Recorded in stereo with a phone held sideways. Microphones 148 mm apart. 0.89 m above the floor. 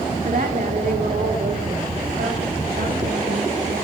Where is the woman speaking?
60° right (ahead or behind), 1.5 m; by 3.7 s 75° right (ahead or behind), 5.5 m.